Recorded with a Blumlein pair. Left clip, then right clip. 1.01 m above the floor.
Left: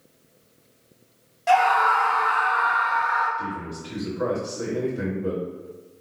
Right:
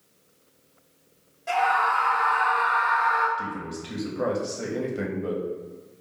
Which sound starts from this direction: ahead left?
A scream, at 1.5 s.